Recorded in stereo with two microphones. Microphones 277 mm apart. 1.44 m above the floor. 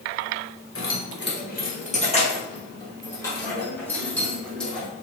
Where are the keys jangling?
50° left (ahead or behind), 0.9 m; by 4.9 s 5° left (ahead or behind), 2.5 m.